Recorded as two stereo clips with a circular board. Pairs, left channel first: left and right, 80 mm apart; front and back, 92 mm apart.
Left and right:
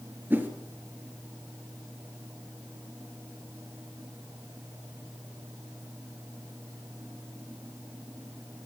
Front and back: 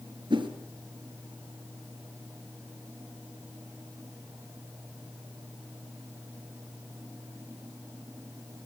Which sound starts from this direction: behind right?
A whoosh, at 0.3 s.